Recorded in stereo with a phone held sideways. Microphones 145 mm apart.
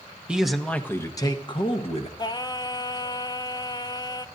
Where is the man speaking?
5° right (ahead or behind), 1.0 m; by 2.1 s 45° left (ahead or behind), 1.4 m.